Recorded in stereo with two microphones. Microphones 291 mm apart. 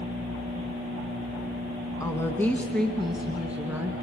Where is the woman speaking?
10° left (ahead or behind), 1.7 m; by 3.9 s 10° right (ahead or behind), 2 m.